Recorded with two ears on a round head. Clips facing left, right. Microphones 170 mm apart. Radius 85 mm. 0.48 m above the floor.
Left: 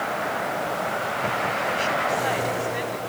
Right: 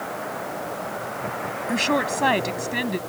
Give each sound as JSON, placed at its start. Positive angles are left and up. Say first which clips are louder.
{"t": 1.7, "sound": "a woman speaking", "louder": "right 6 dB", "side_deg": -75}